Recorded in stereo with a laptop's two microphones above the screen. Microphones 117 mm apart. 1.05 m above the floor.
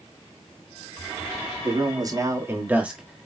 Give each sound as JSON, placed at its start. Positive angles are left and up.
{"t": 1.6, "sound": "a man speaking", "side_deg": -40, "distance_m": 2.0}